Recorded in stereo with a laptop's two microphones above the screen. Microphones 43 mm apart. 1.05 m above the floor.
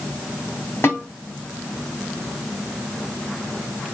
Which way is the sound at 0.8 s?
75° left (ahead or behind).